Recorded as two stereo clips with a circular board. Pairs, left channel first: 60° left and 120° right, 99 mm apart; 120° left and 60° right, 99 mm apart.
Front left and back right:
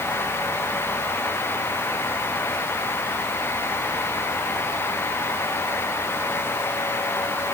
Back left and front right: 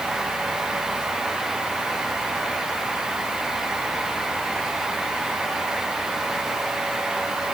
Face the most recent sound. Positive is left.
No sound to turn to.